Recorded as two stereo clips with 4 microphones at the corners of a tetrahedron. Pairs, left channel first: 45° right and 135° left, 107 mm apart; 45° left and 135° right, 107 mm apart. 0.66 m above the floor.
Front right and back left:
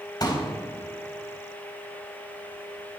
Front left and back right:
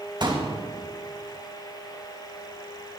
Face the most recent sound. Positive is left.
turn(degrees=-95)